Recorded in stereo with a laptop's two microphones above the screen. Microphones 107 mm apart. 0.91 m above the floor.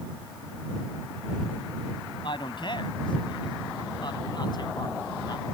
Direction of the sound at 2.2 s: 45° left (ahead or behind).